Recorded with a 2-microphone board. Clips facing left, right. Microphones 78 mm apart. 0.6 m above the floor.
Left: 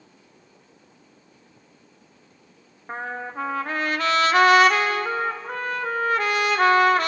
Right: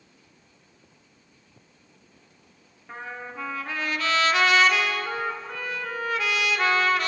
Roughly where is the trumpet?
Left.